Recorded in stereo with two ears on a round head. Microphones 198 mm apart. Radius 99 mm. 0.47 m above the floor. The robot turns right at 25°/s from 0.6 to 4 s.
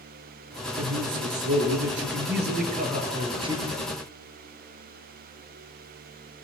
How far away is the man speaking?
About 8 m.